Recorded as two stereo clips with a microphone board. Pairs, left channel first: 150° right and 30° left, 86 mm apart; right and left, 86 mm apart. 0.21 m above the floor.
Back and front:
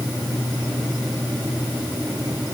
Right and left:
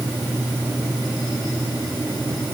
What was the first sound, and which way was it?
Only background noise.